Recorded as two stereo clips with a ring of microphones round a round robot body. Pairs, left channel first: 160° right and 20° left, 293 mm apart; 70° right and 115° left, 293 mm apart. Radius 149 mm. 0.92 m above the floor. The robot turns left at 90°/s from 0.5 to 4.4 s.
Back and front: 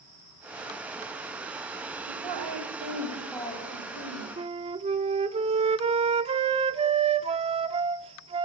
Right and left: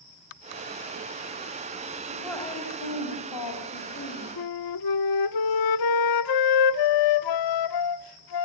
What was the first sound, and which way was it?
A woman speaking, 40° left.